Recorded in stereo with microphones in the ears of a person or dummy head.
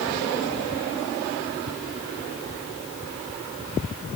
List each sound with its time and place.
Only background noise.